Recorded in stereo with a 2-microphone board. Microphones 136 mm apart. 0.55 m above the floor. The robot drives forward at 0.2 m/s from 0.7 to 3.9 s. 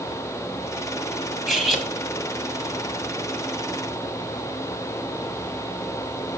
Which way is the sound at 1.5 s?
Centre (ahead or behind).